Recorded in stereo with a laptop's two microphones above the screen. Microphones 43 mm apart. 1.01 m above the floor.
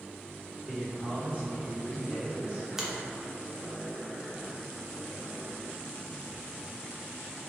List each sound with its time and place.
0.7 s a man speaking: 25° left (ahead or behind), 1.5 m; by 2.7 s 60° left (ahead or behind), 1.7 m
2.8 s a finger snap: 10° right (ahead or behind), 0.7 m